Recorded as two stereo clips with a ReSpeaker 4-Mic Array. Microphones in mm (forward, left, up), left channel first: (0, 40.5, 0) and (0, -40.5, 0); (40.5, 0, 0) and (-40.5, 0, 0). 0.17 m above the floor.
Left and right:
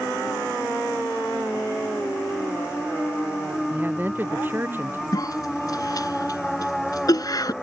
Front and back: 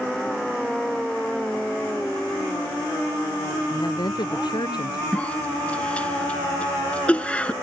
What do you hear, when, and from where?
3.7 s a woman speaking: 25° right; by 5.0 s 30° right
5.1 s a cough: 70° left